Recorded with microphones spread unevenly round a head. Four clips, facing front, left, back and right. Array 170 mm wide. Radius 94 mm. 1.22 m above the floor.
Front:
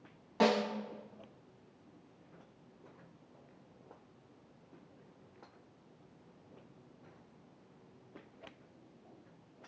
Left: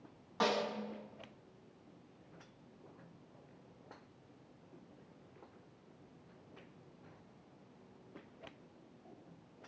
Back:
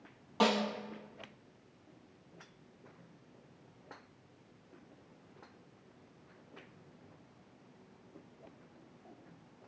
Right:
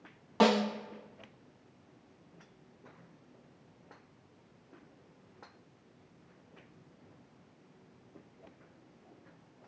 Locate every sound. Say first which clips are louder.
0.4 s a snare drum: right 8 dB, front 1 dB; 80° right, 2.5 m